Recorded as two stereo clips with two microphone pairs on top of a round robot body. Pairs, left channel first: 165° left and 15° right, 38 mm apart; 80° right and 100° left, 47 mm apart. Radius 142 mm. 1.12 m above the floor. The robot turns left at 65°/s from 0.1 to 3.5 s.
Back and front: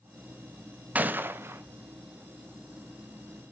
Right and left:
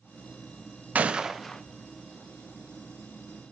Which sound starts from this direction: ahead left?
A gunshot, at 0.9 s.